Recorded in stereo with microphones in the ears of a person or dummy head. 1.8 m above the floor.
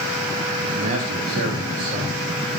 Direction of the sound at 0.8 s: 40° right (ahead or behind).